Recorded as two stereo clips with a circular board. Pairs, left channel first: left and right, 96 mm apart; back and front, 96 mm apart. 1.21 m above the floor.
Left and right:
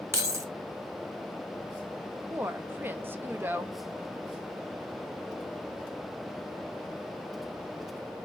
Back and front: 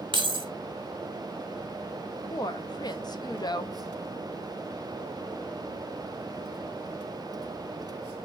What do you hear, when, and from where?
0.1 s keys jangling: 30° right, 1.0 m
2.3 s a woman speaking: 155° right, 0.7 m